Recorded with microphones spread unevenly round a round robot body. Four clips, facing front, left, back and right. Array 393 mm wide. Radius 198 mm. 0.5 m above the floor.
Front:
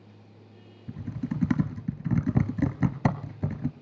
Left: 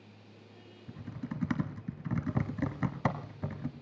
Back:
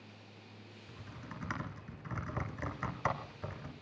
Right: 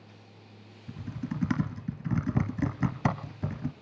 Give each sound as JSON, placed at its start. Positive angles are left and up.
{"t": 0.9, "sound": "typing on a keyboard", "azimuth_deg": -20, "distance_m": 1.1}